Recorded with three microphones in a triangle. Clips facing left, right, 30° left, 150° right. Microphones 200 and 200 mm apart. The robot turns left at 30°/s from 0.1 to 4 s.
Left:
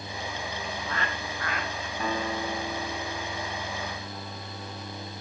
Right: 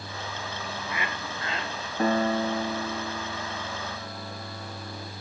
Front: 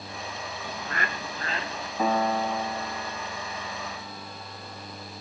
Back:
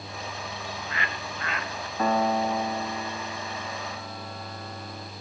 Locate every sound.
0.6 s a bird: straight ahead, 0.7 m; by 1.9 s 40° right, 0.7 m
2.0 s a piano: 50° right, 1.2 m; by 5.1 s 110° right, 1.2 m